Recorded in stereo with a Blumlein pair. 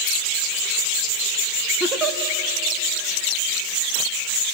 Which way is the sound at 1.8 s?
25° right.